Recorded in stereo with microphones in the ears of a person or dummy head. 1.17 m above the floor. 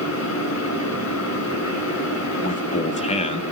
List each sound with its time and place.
0.0 s a fan: 80° left, 8 m
2.4 s a man speaking: 35° left (ahead or behind), 1.5 m